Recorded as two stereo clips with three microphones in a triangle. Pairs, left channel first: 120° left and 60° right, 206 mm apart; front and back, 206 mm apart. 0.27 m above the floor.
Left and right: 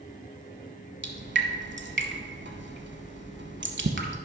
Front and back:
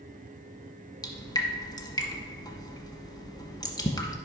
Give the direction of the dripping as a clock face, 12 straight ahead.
2 o'clock.